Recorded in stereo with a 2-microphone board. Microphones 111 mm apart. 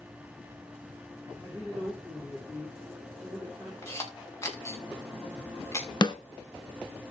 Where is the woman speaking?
10° left (ahead or behind), 7.5 m.